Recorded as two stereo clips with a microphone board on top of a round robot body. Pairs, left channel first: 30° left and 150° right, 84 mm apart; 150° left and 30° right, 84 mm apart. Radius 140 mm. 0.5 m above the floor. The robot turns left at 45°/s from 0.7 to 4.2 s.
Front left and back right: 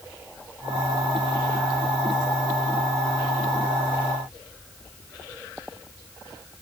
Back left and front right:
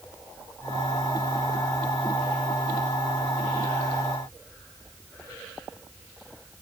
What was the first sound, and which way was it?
Only background noise.